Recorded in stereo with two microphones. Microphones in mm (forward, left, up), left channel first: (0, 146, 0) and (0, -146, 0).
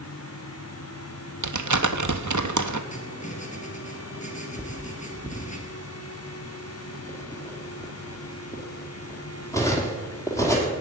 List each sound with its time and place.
1.4 s crumpling: 80° right, 0.9 m
2.9 s writing: 25° left (ahead or behind), 3 m
4.6 s cutlery clinking: 10° left (ahead or behind), 2.5 m